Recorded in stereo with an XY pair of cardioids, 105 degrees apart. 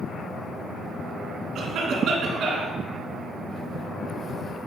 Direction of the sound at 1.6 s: 65° right.